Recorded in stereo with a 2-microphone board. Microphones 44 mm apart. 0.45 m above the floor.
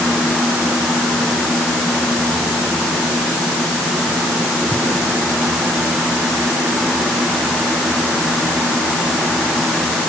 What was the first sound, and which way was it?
Only background noise.